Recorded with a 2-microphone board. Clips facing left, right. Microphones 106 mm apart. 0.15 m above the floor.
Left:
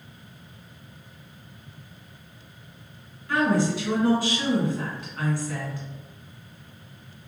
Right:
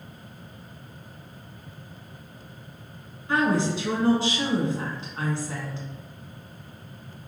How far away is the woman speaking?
About 1.5 m.